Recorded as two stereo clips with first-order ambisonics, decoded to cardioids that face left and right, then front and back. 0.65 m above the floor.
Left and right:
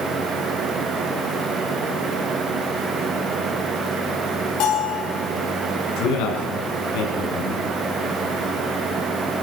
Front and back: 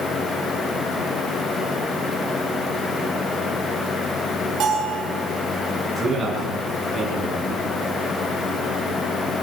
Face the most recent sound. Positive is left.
turn(degrees=95)